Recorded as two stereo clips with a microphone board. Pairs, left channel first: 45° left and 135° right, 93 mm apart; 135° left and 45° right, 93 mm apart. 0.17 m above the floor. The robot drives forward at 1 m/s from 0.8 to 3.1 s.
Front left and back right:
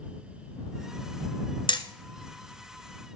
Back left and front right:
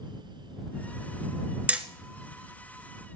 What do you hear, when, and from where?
1.7 s hammering: 30° left, 1.0 m; by 1.8 s 35° left, 0.9 m